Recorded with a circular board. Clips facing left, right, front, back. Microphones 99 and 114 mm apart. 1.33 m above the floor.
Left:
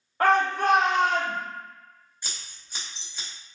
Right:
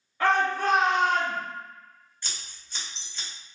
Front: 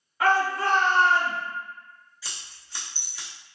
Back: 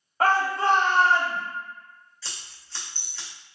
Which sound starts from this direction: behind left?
A shout, at 0.2 s.